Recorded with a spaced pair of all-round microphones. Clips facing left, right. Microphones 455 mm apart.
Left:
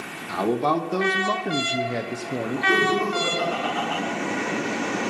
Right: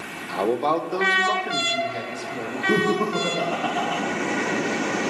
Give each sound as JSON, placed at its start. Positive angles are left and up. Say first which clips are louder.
{"t": 0.3, "sound": "a man speaking", "louder": "even", "side_deg": 25, "distance_m": 1.2}
{"t": 2.7, "sound": "laughter", "louder": "right 3 dB", "side_deg": -60, "distance_m": 1.4}